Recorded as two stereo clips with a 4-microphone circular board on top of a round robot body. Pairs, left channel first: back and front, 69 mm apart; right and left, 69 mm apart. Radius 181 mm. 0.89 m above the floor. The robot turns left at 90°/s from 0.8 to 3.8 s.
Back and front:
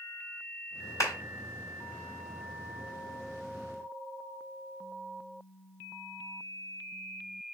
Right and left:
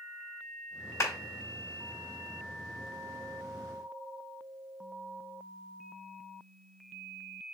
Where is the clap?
135° right, 3.5 m; by 1.1 s 150° right, 3.5 m.